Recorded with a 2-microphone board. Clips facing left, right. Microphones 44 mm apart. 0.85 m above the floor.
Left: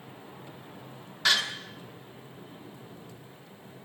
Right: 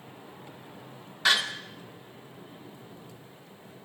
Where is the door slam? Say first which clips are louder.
Right 1 dB; 5° right (ahead or behind), 1.3 m.